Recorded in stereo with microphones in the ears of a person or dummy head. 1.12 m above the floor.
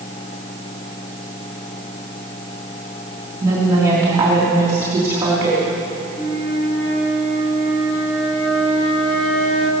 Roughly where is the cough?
I don't hear a cough.